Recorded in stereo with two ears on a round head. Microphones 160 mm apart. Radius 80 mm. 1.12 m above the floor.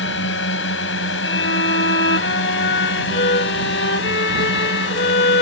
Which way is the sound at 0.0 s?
80° left.